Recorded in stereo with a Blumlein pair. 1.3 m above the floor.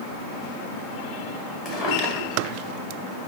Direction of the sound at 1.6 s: 25° left.